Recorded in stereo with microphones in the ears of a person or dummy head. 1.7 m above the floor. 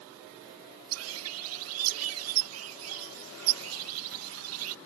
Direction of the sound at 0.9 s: 85° right.